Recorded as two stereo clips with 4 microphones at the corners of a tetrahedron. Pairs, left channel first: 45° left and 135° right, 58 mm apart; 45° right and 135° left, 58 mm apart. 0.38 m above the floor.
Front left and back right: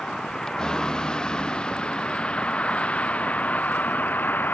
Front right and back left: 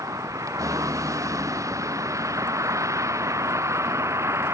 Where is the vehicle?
125° left; by 4.5 s 100° left.